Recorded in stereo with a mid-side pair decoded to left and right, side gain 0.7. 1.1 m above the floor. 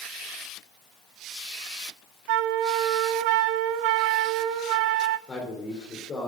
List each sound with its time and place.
2.3 s a flute: 70° right, 0.6 m
5.3 s a man speaking: 25° left, 3.5 m